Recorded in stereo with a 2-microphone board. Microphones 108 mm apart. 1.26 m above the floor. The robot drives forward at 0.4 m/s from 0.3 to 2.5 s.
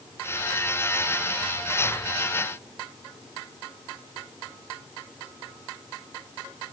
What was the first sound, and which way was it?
Only background noise.